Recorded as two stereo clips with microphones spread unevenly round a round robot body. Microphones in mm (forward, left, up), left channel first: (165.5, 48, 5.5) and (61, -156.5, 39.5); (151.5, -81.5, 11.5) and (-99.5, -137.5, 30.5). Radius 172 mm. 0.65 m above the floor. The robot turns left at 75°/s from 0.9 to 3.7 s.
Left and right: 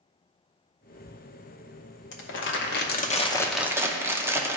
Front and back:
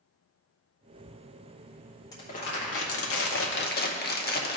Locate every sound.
2.1 s crumpling: 85° left, 0.9 m; by 4.6 s 30° right, 0.9 m